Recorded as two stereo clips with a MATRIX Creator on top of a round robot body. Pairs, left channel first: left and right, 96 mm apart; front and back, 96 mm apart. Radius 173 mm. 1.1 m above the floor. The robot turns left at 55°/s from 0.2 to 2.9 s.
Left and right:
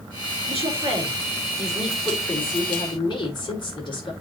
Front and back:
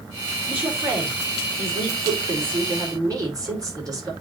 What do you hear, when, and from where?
0.5 s a woman speaking: 100° right, 5 m; by 4.1 s 130° left, 5 m